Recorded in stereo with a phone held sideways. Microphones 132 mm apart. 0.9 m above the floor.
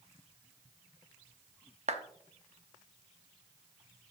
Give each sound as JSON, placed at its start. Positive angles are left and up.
{"t": 1.9, "sound": "a clap", "side_deg": -60, "distance_m": 1.0}